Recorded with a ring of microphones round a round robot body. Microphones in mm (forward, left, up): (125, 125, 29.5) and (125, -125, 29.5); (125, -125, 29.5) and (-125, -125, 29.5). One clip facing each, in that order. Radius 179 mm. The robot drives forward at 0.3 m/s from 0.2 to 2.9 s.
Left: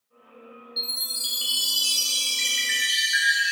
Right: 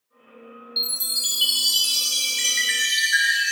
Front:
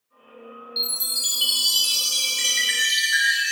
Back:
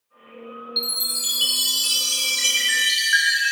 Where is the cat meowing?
I don't hear a cat meowing.